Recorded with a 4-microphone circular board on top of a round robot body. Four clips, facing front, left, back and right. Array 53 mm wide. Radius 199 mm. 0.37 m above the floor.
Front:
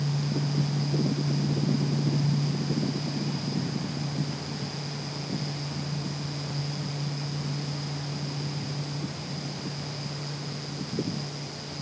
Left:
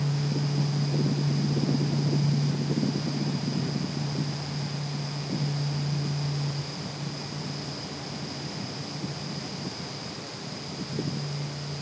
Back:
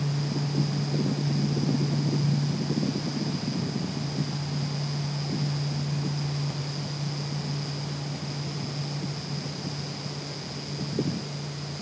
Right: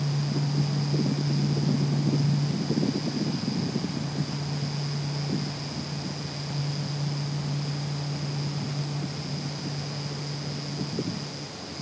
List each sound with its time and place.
Only background noise.